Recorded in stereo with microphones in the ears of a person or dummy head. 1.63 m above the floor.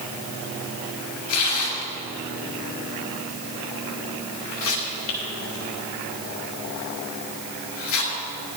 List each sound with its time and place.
1.3 s tearing paper: 70° left (ahead or behind), 4.5 m